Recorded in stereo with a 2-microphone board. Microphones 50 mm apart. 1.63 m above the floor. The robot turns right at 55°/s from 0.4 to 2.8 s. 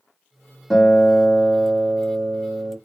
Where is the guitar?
175° left, 1.9 m; by 2.8 s 75° right, 1.9 m.